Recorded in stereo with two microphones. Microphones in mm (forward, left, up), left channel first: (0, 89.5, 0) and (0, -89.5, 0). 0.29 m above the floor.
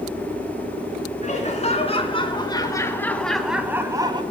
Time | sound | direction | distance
1.2 | laughter | 40° left (ahead or behind) | 3 m